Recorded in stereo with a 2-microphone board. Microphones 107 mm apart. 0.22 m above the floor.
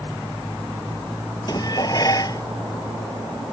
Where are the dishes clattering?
40° left (ahead or behind).